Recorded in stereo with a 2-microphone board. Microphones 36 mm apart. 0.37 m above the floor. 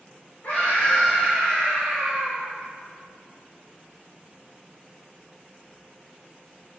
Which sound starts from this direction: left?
A scream, at 0.4 s.